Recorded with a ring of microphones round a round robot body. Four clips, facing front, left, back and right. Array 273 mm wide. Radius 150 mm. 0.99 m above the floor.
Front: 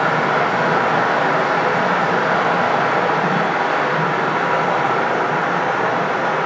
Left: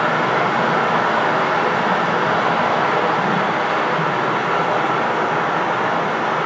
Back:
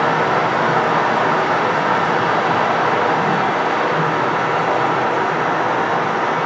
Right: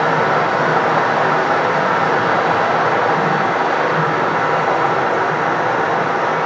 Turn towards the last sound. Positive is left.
turn(degrees=-85)